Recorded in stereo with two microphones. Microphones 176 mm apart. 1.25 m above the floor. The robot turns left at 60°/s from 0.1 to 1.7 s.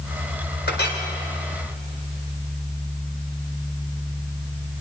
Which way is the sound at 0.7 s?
80° left.